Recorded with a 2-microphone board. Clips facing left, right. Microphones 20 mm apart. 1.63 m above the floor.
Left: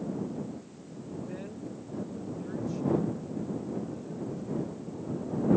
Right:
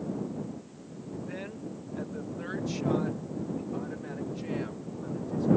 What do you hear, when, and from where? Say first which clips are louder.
1.3 s a woman speaking: right 1 dB; 35° right (ahead or behind); by 5.5 s 75° right (ahead or behind)